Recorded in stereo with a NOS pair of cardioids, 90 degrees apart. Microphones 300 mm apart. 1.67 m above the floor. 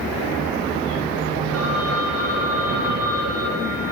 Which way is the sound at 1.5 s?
55° right.